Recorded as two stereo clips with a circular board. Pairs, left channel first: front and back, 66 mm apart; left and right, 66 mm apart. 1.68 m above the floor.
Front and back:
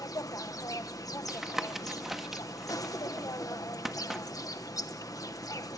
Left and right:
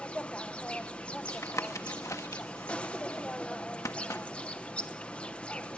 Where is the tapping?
95° left, 1.4 m.